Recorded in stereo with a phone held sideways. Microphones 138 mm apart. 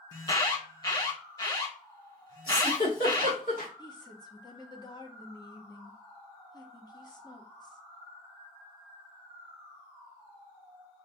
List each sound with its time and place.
0.1 s an alarm: 30° left (ahead or behind), 0.9 m
2.5 s a giggle: 85° left, 2 m
3.8 s a woman speaking: 30° left (ahead or behind), 1.1 m